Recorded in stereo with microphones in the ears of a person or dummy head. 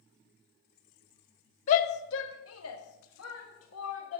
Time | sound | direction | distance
1.7 | a shout | 40° left (ahead or behind) | 0.6 m